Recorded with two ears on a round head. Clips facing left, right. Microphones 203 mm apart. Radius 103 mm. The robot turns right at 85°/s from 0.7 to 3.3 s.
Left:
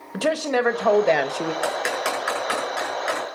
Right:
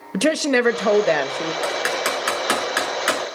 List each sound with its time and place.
0.1 s a woman speaking: 45° right, 1.1 m; by 1.5 s 25° left, 1.1 m
1.6 s typing on a keyboard: 10° left (ahead or behind), 6 m; by 3.2 s 55° right (ahead or behind), 6 m